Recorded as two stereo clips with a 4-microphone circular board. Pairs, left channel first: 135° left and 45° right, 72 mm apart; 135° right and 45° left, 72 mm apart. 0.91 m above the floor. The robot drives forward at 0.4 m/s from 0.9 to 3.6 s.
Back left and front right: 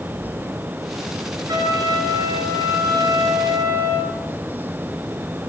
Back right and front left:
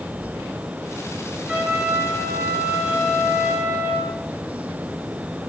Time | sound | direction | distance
1.5 | a trumpet | 20° right | 8 m